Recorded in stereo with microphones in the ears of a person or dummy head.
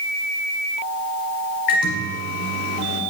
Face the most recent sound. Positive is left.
turn(degrees=65)  # may be behind; listen again after turning